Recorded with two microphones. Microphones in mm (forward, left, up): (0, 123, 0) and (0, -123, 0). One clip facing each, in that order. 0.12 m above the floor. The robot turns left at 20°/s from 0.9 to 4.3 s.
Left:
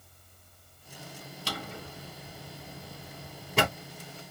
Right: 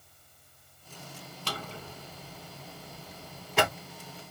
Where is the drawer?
10° left (ahead or behind), 1.7 m; by 3.7 s 45° left (ahead or behind), 1.7 m.